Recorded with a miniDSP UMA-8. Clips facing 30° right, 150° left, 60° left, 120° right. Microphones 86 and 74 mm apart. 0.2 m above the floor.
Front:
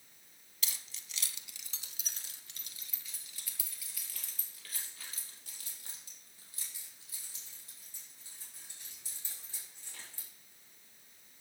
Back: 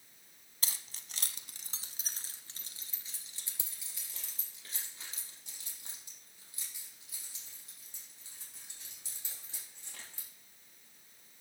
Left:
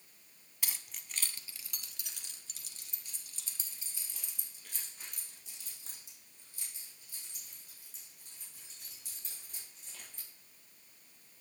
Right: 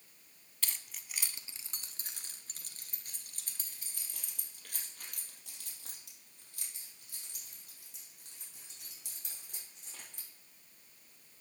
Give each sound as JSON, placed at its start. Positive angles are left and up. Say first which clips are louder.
{"t": 0.6, "sound": "keys jangling", "louder": "even, even", "azimuth_deg": 130, "distance_m": 0.9}